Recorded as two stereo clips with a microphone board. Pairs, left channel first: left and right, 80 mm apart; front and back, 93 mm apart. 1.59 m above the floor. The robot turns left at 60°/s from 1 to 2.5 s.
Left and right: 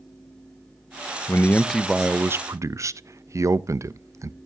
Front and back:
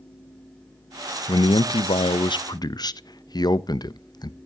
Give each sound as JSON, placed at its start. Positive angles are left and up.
{"t": 1.3, "sound": "a man speaking", "azimuth_deg": 35, "distance_m": 0.5}